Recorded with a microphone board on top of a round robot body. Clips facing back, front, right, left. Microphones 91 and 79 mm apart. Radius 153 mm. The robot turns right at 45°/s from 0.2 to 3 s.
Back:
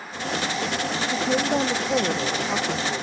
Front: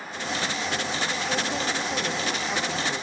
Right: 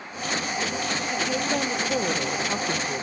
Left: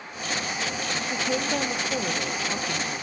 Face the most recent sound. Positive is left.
turn(degrees=-110)